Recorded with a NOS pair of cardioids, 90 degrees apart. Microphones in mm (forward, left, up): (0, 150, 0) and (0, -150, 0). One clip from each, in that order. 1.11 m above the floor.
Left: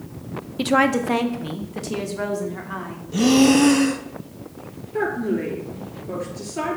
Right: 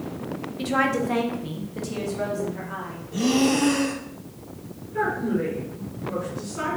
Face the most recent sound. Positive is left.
turn(degrees=60)